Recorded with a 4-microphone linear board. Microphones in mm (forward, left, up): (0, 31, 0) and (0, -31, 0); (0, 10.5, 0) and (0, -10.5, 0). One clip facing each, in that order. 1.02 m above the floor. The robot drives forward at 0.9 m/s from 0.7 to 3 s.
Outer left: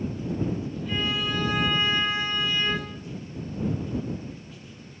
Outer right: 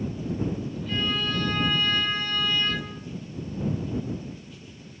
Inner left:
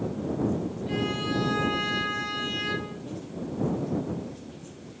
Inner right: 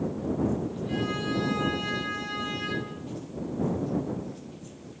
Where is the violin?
10° left (ahead or behind), 4.5 m; by 3.0 s 15° left (ahead or behind), 2.5 m.